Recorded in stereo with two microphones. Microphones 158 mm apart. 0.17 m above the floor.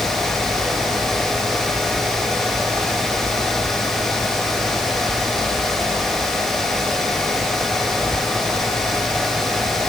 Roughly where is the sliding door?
No sliding door in this recording.